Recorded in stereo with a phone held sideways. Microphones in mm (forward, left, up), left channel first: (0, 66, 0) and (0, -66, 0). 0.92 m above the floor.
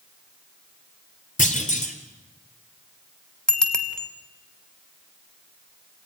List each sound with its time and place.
1.4 s a clunk: 75° left (ahead or behind), 3 m
3.5 s a bicycle bell: 5° left (ahead or behind), 2.5 m